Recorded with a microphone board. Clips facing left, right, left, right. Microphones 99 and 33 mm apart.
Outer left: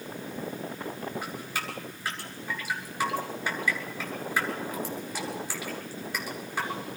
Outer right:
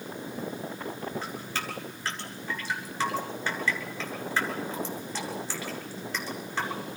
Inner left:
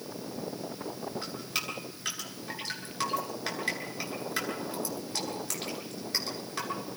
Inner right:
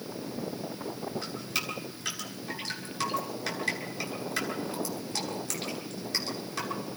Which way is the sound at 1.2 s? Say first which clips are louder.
Even, even; 15° left (ahead or behind).